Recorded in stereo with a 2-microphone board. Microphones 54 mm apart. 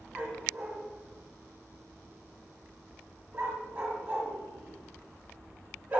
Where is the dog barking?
25° right (ahead or behind), 1.3 m.